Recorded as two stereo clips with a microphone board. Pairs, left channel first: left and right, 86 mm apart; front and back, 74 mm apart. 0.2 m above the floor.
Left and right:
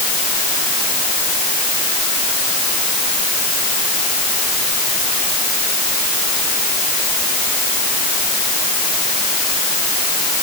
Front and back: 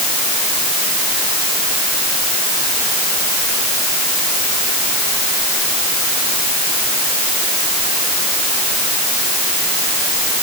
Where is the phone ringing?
No phone ringing in this recording.